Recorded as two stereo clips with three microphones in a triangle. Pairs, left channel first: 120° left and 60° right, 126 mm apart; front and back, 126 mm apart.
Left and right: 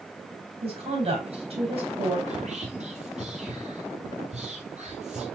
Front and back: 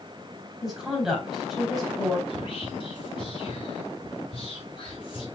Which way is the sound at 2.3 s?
45° right.